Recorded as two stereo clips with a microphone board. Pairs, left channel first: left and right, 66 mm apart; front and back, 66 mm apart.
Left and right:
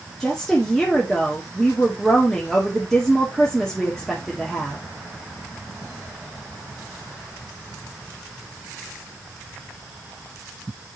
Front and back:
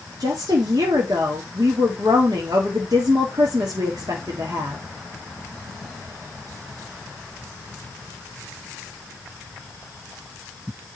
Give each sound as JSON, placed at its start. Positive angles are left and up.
{"t": 0.2, "sound": "a woman speaking", "azimuth_deg": 175, "distance_m": 1.7}